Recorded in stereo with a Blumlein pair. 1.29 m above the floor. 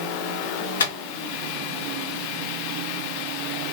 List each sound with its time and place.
0.8 s a microwave: 65° left, 0.6 m